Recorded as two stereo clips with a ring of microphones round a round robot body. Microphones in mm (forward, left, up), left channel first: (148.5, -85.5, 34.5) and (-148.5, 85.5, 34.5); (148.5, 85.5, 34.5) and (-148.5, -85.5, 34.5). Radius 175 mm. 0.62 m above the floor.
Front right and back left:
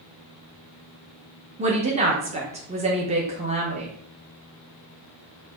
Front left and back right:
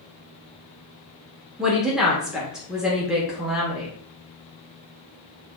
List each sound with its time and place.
1.6 s a woman speaking: 125° left, 0.9 m